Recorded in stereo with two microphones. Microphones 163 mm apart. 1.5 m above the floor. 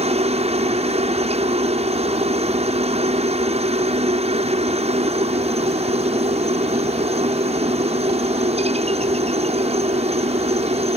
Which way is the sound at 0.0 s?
40° right (ahead or behind).